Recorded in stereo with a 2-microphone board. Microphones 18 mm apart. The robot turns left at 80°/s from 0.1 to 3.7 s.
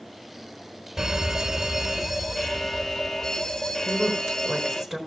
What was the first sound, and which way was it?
An alarm, 65° right.